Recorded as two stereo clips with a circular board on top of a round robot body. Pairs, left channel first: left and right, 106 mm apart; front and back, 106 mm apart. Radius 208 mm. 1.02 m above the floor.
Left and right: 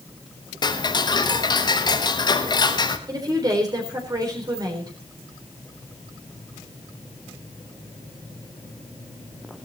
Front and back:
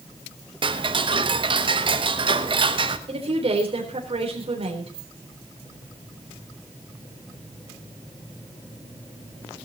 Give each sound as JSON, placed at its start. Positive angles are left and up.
{"t": 0.6, "sound": "ticking", "azimuth_deg": 140, "distance_m": 1.3}
{"t": 3.1, "sound": "a woman speaking", "azimuth_deg": -145, "distance_m": 4.0}